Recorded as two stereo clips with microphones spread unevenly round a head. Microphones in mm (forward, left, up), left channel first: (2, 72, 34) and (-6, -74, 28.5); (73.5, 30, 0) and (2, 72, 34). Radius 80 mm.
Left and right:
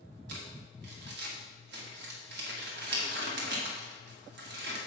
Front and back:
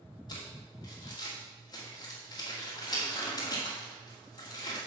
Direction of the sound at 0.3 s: 85° right.